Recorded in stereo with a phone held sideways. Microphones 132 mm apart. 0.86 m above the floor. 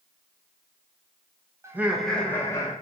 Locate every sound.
1.6 s laughter: 20° right (ahead or behind), 0.7 m; by 2.7 s 25° left (ahead or behind), 1.1 m